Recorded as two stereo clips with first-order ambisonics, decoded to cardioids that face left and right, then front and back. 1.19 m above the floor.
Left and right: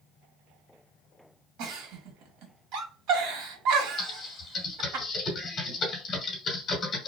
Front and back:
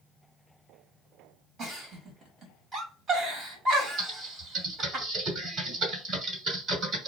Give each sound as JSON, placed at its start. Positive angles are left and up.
{"t": 1.6, "sound": "a giggle", "azimuth_deg": -115, "distance_m": 1.9}
{"t": 4.0, "sound": "typing on a keyboard", "azimuth_deg": 140, "distance_m": 1.0}